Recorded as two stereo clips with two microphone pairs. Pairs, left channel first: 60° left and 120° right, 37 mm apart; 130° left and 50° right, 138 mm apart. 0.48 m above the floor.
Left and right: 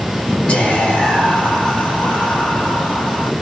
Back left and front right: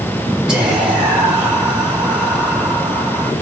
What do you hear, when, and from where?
0.5 s whispering: 35° left, 1.6 m